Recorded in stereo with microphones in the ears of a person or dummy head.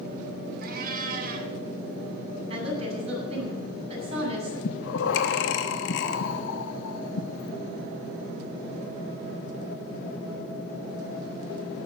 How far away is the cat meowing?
About 2 m.